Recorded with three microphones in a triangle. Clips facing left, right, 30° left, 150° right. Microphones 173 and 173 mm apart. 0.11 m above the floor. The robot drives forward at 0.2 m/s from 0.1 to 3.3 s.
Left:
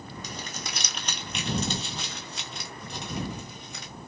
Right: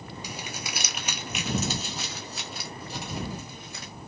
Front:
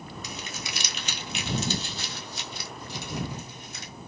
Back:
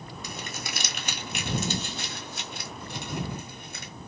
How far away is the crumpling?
About 0.6 m.